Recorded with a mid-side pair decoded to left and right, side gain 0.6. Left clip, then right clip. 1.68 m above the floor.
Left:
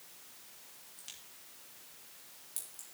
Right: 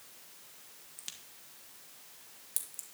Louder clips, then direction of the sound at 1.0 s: Right 4 dB; 40° right.